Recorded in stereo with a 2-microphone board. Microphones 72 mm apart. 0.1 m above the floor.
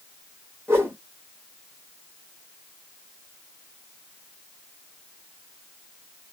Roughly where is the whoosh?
Right.